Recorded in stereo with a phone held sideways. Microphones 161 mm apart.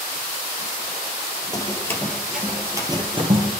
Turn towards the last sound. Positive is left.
turn(degrees=-40)  # may be behind; listen again after turning